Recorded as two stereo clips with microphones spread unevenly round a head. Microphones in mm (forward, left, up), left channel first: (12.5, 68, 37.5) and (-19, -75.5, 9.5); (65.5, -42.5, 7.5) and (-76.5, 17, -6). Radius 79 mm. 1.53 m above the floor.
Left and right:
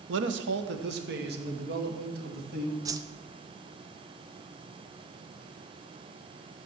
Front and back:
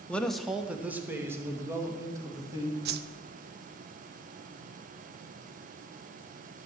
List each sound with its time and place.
0.1 s a man speaking: 105° right, 1.0 m; by 2.8 s 135° right, 3 m
2.9 s a whoosh: 175° right, 0.6 m